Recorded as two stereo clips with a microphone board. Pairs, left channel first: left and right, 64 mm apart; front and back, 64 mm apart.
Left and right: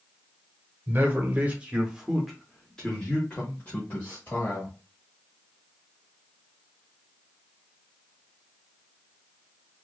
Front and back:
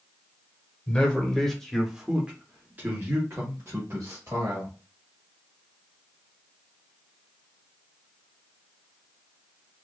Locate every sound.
0.9 s a man speaking: 60° right, 1.0 m; by 4.8 s 140° left, 1.6 m